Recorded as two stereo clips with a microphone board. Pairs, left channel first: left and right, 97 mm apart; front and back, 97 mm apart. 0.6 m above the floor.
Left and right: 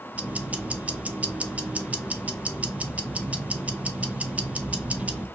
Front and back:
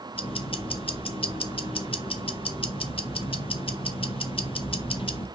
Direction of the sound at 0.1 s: 15° right.